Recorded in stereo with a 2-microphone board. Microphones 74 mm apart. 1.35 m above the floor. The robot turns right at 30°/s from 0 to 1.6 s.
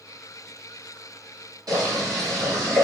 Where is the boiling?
60° right (ahead or behind), 1.8 m.